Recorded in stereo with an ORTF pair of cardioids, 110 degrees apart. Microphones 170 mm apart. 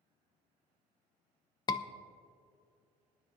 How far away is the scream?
About 0.8 m.